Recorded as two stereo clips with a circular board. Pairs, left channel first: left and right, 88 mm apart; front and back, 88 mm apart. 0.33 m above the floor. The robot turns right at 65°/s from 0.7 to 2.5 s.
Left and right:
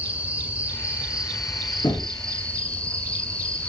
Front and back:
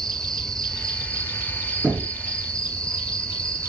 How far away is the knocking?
About 4.5 m.